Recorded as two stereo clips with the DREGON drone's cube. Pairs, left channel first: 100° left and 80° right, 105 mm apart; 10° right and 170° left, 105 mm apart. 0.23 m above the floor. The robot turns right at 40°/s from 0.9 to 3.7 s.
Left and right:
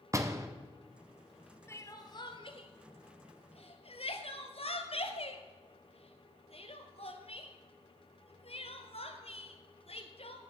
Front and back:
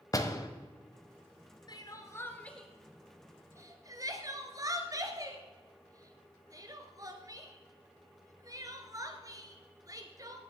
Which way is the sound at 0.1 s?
45° right.